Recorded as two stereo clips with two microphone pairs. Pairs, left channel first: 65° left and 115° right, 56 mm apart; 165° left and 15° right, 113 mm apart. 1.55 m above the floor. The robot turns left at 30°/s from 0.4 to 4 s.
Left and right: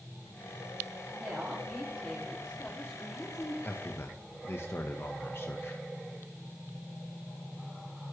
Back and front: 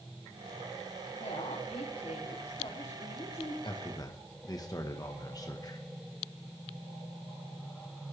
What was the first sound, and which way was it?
A woman speaking, straight behind.